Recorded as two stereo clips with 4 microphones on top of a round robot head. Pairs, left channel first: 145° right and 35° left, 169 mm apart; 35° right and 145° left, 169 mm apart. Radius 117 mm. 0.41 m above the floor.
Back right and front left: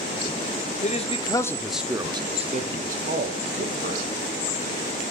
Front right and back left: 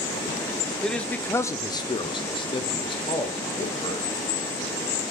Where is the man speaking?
125° right, 1.0 m; by 4.1 s 25° left, 2 m.